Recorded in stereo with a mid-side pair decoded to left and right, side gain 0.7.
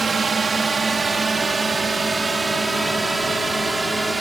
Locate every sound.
0.0 s a drone: 20° right; by 4.2 s 10° right